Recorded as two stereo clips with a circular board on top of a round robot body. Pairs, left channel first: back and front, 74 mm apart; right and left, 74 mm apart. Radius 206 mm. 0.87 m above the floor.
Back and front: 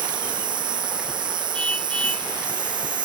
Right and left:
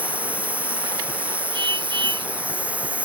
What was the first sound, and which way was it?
An insect, 15° left.